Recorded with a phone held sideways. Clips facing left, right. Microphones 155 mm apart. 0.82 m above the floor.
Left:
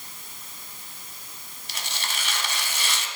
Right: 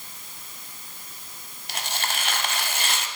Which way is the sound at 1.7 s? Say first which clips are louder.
Right 4 dB; 55° right (ahead or behind).